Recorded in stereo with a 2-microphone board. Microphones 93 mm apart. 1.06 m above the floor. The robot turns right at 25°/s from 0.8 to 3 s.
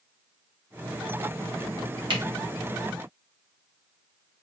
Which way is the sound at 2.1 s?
60° right (ahead or behind).